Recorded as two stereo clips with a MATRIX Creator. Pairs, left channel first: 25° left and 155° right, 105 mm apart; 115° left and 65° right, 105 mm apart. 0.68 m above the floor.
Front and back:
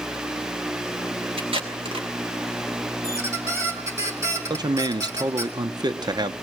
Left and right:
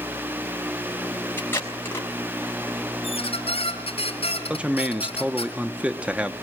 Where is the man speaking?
140° right, 0.8 m.